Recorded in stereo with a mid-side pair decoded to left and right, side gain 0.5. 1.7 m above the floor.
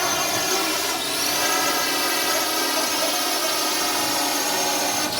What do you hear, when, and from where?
0.0 s a drone: 10° left